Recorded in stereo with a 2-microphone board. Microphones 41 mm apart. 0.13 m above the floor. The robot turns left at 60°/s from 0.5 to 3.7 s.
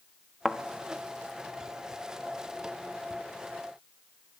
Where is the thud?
Centre (ahead or behind), 1.2 m; by 0.6 s 5° left (ahead or behind), 1.2 m.